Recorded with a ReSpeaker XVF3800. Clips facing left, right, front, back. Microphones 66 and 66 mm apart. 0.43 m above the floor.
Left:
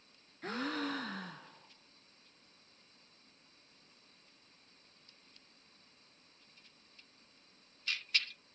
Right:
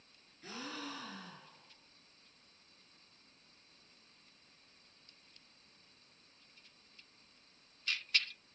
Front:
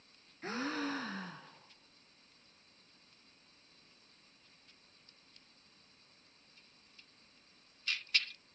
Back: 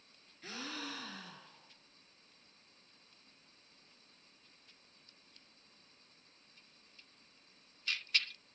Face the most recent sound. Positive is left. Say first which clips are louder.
# left 8 dB, front 7 dB
turn(degrees=50)